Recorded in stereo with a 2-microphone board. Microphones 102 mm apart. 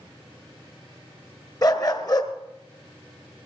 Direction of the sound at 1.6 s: 40° left (ahead or behind).